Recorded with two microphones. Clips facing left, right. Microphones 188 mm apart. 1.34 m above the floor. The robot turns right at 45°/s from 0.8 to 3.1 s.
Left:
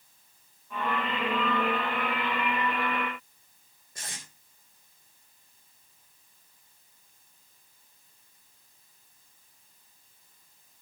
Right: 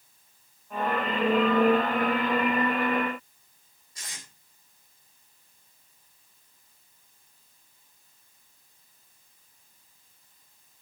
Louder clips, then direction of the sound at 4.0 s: Left 3 dB; 55° left (ahead or behind).